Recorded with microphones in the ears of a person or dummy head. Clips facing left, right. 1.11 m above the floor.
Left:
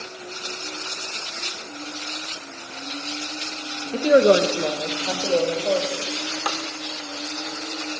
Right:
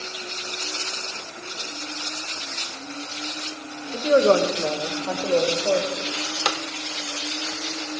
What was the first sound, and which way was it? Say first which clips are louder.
A woman speaking: left 2 dB; 25° left (ahead or behind).